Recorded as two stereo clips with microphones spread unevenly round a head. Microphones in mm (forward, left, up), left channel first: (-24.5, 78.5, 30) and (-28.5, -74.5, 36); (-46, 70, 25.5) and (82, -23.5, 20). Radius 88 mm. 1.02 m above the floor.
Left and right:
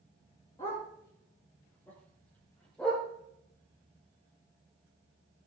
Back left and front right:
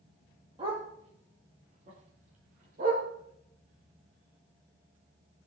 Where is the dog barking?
20° left, 7.5 m; by 3.0 s straight ahead, 7.5 m.